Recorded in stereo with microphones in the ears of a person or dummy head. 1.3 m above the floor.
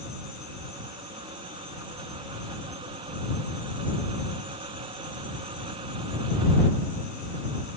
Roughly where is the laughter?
I don't hear laughter.